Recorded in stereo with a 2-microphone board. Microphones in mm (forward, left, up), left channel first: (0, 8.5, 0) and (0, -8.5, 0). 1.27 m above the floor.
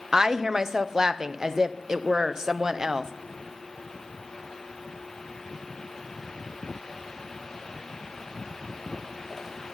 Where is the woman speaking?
30° right (ahead or behind), 0.6 m.